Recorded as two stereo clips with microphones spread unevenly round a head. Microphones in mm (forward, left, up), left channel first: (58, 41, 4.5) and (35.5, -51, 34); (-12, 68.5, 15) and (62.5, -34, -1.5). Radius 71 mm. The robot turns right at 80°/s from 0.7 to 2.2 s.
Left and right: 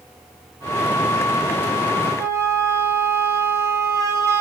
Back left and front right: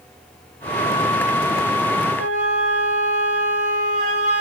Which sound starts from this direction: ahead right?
A flute, at 2.2 s.